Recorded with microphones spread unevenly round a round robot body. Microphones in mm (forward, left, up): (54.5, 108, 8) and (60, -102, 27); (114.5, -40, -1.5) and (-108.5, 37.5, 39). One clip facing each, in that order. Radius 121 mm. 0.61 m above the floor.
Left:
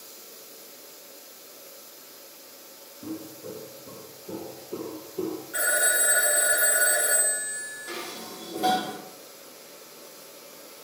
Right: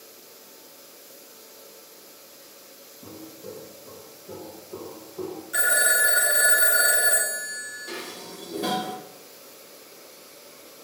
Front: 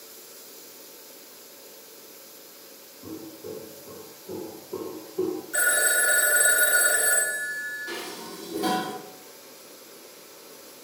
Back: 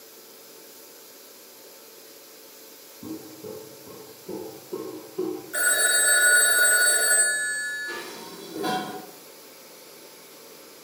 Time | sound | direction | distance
3.0 | footsteps | 165° left | 1.4 m
5.5 | a phone ringing | 100° right | 0.5 m
7.9 | dishes clattering | 25° right | 0.9 m